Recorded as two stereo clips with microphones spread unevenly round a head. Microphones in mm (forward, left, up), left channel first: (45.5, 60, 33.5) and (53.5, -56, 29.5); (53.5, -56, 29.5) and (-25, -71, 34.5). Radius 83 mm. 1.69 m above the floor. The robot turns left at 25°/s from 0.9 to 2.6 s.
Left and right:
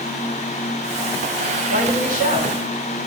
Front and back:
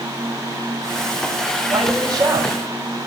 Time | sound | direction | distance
1.7 | a man speaking | 115° left | 5 m